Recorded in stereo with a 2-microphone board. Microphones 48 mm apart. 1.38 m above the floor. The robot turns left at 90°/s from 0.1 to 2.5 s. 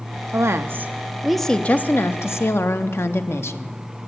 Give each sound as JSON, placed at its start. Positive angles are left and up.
{"t": 0.3, "sound": "a woman speaking", "azimuth_deg": -90, "distance_m": 0.6}